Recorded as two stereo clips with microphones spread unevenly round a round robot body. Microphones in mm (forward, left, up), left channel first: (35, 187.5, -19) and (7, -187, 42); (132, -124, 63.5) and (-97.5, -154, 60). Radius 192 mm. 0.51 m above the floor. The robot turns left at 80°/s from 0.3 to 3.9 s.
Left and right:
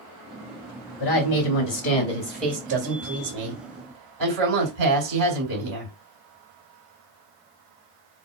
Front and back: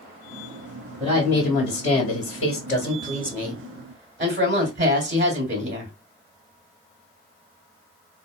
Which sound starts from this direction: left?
A woman speaking, at 1.0 s.